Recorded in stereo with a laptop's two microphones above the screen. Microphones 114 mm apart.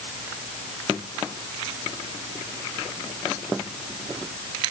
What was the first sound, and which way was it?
Only background noise.